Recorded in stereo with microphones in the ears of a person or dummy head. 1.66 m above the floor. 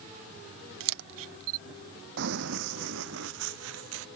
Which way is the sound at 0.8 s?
75° right (ahead or behind).